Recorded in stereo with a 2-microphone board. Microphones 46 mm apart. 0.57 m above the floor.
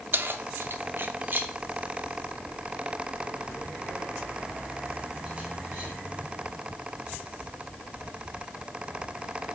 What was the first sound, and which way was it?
Keys jangling, 45° right (ahead or behind).